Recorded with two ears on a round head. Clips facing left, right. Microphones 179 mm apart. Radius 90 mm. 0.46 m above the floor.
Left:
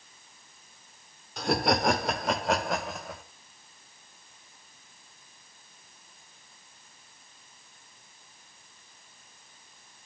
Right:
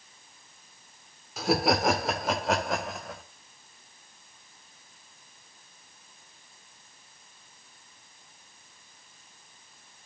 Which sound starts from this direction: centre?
Laughter, at 1.4 s.